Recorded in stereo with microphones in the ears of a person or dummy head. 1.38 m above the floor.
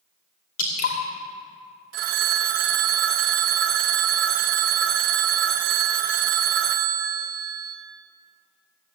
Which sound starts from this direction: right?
A phone ringing, at 1.9 s.